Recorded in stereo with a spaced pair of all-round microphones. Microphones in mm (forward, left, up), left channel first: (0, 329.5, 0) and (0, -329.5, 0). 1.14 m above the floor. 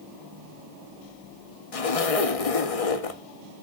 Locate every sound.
1.7 s a zipper: 60° left (ahead or behind), 0.9 m